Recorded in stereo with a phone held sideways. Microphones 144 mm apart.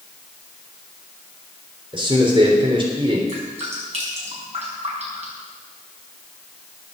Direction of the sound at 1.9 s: 35° right (ahead or behind).